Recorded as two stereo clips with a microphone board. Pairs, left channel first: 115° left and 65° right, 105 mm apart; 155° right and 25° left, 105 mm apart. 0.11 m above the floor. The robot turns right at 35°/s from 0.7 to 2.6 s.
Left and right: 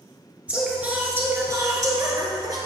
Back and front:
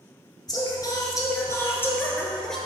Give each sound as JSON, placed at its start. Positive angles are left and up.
{"t": 0.5, "sound": "singing", "azimuth_deg": -140, "distance_m": 1.1}